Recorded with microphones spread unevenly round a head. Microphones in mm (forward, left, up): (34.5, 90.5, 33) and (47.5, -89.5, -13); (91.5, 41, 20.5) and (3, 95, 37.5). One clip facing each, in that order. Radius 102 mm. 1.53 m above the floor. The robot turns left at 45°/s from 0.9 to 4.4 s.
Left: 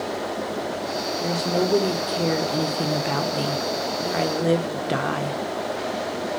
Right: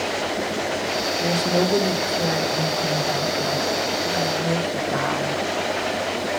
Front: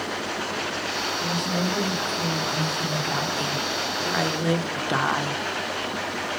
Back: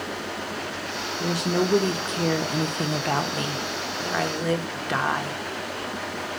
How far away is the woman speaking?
About 1.2 m.